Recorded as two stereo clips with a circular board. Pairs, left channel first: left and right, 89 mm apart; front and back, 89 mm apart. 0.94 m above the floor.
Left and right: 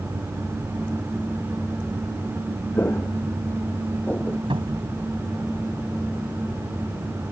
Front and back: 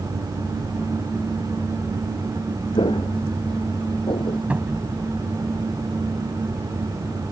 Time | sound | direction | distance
2.7 | footsteps | 25° left | ?
4.5 | a cupboard door | 105° right | ?